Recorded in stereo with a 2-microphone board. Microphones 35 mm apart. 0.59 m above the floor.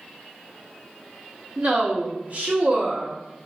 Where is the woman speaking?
45° right (ahead or behind), 1.1 m.